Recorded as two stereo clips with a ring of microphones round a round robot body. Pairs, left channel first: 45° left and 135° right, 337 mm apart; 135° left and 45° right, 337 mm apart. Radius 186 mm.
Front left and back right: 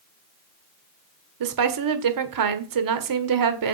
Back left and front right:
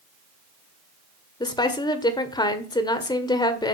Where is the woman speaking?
150° right, 1.7 m.